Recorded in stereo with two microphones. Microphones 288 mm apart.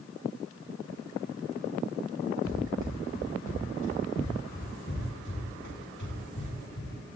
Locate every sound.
2.4 s running footsteps: 75° left (ahead or behind), 9.5 m; by 7.0 s 80° left, 9.5 m